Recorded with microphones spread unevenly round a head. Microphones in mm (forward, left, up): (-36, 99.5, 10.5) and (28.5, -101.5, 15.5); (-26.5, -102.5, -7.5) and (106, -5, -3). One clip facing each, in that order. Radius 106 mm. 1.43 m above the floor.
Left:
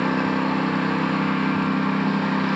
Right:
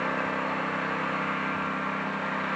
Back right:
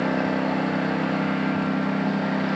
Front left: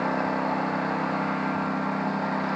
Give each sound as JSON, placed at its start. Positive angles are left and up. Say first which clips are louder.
{"t": 0.0, "sound": "a lawn mower", "louder": "left 10 dB, back right 3 dB", "azimuth_deg": 145}